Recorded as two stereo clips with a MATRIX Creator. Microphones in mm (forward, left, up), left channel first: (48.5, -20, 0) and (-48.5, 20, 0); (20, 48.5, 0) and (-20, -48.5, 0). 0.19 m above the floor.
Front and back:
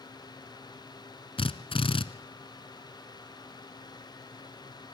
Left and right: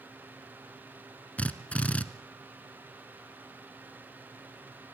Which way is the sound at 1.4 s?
10° right.